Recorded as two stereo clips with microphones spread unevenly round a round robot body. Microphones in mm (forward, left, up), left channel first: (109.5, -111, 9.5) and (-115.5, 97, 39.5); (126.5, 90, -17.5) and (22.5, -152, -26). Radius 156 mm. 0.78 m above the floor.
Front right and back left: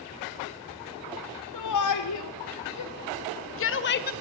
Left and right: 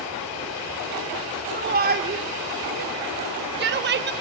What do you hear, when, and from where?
1.5 s a shout: 65° right, 2 m; by 4.1 s 85° right, 0.8 m